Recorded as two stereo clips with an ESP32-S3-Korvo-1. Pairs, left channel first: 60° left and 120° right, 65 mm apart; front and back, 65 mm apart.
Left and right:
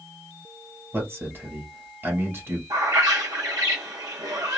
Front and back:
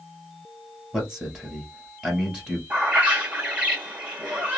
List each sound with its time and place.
0.9 s a man speaking: 110° right, 1.9 m
2.7 s a bird: 115° right, 1.3 m